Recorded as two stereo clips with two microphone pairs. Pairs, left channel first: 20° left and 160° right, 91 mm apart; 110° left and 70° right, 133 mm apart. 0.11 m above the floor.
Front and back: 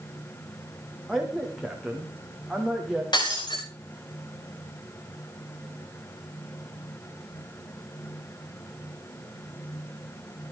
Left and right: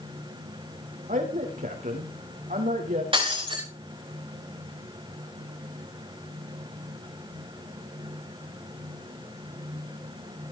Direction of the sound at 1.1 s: 75° right.